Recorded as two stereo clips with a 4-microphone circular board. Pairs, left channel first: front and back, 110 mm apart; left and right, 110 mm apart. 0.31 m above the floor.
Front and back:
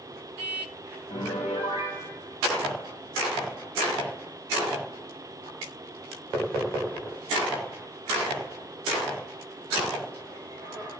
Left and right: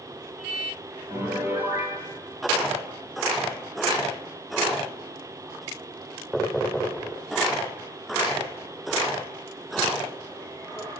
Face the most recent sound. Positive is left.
turn(degrees=-15)